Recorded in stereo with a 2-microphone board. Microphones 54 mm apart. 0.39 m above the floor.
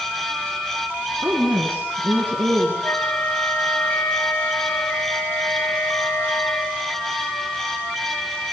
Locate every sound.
1.2 s a woman speaking: 30° right (ahead or behind), 3 m; by 2.7 s 35° right (ahead or behind), 5 m
2.8 s a flute: 40° left (ahead or behind), 1.0 m